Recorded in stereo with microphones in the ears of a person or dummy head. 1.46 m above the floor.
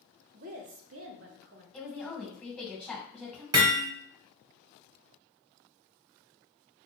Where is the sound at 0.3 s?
40° right (ahead or behind), 0.6 m.